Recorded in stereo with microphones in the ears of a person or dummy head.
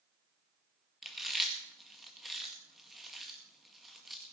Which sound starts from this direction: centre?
Chewing, at 1.0 s.